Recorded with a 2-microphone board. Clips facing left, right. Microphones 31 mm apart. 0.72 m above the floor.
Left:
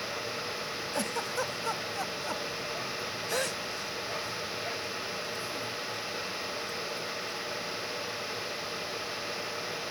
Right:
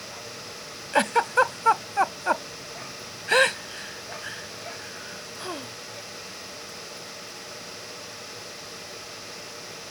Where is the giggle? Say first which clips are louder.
Right 14 dB; 70° right (ahead or behind).